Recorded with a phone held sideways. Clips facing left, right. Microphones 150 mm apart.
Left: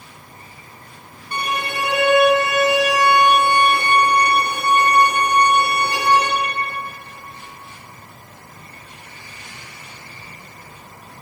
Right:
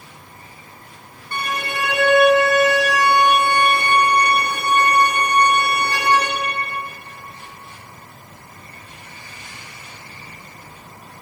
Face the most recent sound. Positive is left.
turn(degrees=20)  # may be behind; listen again after turning